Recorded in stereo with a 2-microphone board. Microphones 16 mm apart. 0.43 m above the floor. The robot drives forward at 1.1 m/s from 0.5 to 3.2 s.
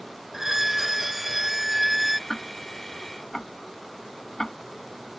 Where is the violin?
25° right (ahead or behind); by 2.2 s 15° right (ahead or behind).